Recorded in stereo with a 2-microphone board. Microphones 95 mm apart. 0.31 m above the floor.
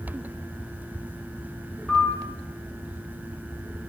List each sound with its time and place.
1.9 s a piano: centre (ahead or behind), 4.5 m